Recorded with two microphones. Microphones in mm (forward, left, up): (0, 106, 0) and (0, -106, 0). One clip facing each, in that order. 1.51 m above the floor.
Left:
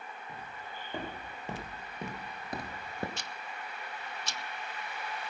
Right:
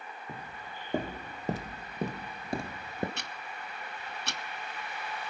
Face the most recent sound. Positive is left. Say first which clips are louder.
# right 1 dB
turn(degrees=-65)  # may be behind; listen again after turning